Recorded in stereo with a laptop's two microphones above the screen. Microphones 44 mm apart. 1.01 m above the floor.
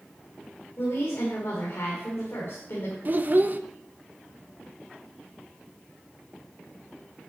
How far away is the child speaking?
About 0.6 m.